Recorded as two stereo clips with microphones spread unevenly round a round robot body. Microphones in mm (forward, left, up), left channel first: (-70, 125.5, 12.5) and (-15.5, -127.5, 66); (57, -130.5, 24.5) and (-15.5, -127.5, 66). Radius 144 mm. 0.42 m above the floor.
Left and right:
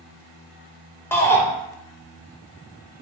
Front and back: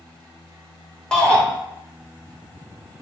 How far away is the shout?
About 1.5 m.